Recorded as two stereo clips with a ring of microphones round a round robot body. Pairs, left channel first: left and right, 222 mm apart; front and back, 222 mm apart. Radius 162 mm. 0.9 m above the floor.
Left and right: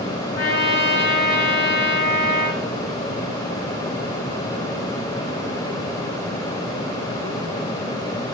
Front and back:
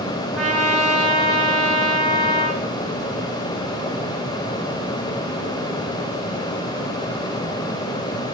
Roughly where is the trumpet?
Left.